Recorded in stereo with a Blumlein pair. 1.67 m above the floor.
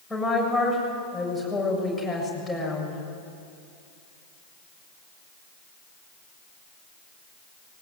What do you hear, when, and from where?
0.1 s a woman speaking: 5° left, 7 m